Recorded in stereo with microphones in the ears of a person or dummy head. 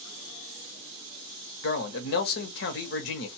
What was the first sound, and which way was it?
A man speaking, 65° left (ahead or behind).